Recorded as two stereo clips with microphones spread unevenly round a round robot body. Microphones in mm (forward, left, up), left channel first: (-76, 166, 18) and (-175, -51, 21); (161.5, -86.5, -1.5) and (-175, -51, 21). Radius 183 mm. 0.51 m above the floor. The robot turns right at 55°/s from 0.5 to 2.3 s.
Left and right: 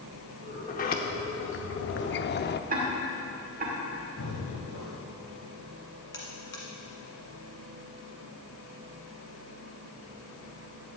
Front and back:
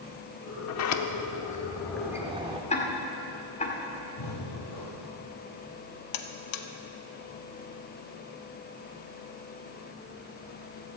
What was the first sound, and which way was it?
A sliding door, 10° left.